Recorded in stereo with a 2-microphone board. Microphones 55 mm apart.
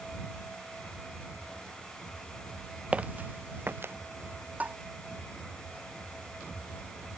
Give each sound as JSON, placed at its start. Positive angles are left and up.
{"t": 2.9, "sound": "footsteps", "side_deg": -25}
{"t": 4.6, "sound": "tapping", "side_deg": -25}